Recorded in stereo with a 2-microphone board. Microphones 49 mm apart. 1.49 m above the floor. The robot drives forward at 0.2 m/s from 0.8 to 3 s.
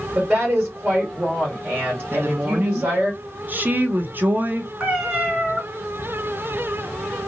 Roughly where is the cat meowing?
Right.